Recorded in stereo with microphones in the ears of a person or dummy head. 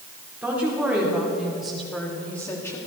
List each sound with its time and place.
0.4 s a woman speaking: 15° right (ahead or behind), 3.5 m; by 2.8 s 10° left (ahead or behind), 2 m